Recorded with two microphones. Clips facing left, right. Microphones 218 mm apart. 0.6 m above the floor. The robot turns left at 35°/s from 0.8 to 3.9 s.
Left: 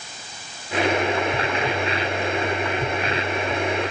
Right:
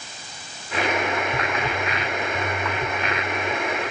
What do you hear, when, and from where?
Only background noise.